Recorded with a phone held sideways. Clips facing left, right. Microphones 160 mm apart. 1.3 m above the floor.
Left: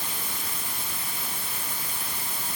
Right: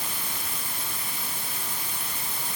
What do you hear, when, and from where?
Only background noise.